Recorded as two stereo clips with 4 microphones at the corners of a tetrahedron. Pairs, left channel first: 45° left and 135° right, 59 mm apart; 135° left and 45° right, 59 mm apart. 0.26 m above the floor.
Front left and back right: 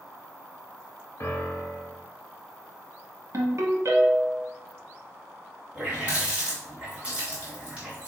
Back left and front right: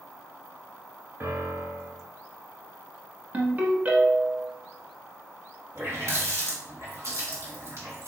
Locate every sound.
1.2 s a piano: 5° left, 0.8 m
3.3 s a ringtone: 105° right, 0.9 m
5.8 s a running tap: 65° right, 1.6 m